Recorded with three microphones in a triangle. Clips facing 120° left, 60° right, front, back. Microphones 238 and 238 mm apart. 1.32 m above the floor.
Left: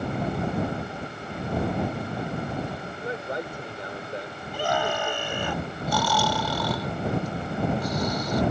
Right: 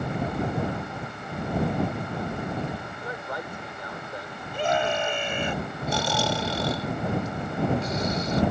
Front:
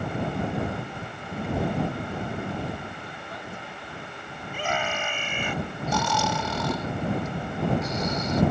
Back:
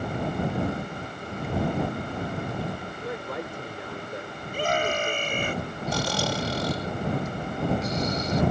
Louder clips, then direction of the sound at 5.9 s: Left 1 dB, even; 125° right.